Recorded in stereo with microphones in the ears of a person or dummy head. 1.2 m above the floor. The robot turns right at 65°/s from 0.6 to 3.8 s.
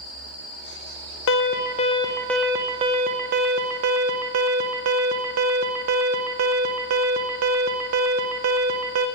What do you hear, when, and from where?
1.3 s an alarm: 110° left, 0.6 m; by 9.1 s 85° right, 0.6 m